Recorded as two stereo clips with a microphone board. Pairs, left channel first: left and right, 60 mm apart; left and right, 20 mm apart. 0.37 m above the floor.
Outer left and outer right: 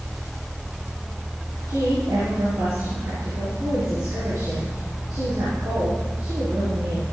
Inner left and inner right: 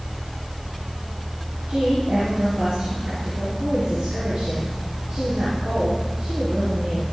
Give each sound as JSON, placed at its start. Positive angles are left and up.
{"t": 1.7, "sound": "a woman speaking", "side_deg": -80, "distance_m": 6.0}